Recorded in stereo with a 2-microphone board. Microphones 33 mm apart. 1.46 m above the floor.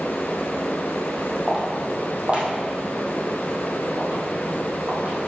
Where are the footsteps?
25° right (ahead or behind), 3 m; by 5.2 s 60° right (ahead or behind), 3.5 m.